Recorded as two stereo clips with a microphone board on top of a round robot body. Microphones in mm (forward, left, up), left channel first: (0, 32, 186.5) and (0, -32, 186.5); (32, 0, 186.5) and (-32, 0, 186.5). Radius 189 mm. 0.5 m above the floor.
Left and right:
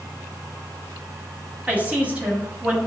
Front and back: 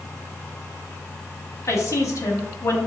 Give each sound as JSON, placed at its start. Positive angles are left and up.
{"t": 1.7, "sound": "a woman speaking", "azimuth_deg": -25, "distance_m": 1.2}